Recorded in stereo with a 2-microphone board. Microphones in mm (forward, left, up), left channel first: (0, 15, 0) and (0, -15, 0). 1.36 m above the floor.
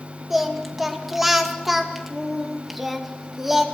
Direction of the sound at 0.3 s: 5° right (ahead or behind).